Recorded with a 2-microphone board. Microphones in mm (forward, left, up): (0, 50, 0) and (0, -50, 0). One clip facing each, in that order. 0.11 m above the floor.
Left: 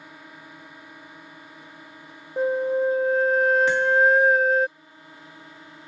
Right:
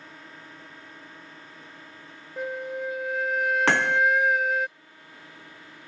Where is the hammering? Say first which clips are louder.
Left 3 dB; 70° right (ahead or behind).